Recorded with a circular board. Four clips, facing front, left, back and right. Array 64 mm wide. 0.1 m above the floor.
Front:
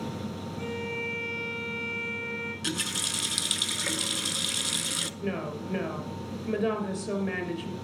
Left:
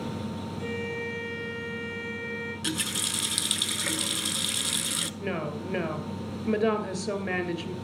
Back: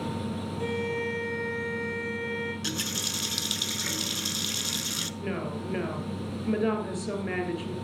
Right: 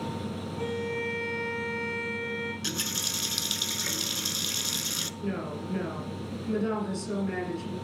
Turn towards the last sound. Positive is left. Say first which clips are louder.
# left 1 dB, even
turn(degrees=100)